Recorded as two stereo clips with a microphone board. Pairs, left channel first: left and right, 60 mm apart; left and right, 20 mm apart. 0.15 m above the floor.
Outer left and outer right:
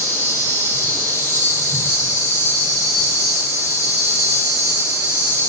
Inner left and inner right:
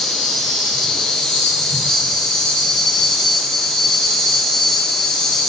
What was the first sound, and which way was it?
An insect, 55° left (ahead or behind).